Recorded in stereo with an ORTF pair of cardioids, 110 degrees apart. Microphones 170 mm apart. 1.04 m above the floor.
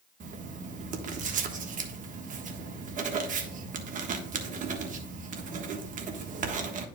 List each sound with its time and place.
0.2 s writing: 50° right, 1.3 m